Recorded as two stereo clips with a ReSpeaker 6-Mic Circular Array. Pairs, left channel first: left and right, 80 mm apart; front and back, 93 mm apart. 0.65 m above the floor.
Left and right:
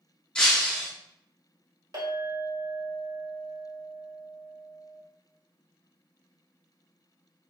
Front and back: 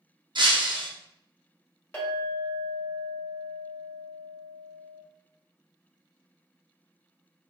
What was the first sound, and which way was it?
Breaking glass, 170° left.